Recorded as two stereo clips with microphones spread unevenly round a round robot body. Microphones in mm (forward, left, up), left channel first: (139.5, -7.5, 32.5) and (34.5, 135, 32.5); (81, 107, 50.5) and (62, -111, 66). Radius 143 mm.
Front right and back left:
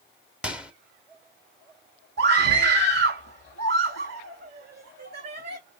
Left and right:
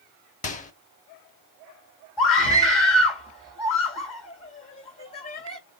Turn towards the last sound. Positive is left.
turn(degrees=140)